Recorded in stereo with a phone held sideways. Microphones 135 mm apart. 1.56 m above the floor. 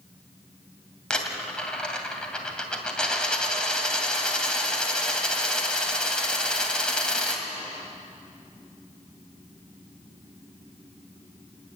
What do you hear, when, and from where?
1.1 s a dropped coin: 5° left (ahead or behind), 2 m